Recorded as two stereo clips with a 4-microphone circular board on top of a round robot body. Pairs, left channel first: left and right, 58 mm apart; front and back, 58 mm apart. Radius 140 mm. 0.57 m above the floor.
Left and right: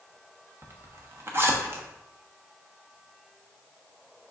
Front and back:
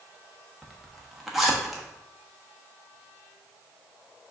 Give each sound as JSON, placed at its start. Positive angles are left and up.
{"t": 0.6, "sound": "a zipper", "azimuth_deg": -95, "distance_m": 1.1}